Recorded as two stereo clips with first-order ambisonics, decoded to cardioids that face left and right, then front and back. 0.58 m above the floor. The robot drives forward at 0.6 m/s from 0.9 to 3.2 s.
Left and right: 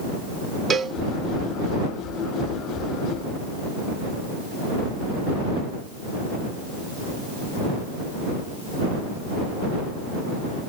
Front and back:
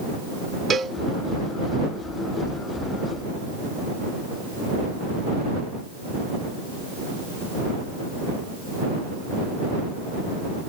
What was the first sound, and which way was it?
A cowbell, 135° right.